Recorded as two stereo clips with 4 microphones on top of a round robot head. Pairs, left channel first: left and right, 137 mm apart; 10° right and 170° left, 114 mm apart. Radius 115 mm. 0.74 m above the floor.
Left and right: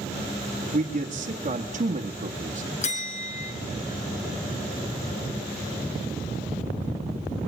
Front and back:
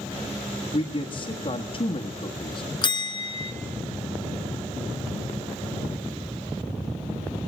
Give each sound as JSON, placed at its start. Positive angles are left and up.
{"t": 0.7, "sound": "a man speaking", "azimuth_deg": -55, "distance_m": 1.5}
{"t": 2.8, "sound": "a bell", "azimuth_deg": 40, "distance_m": 3.0}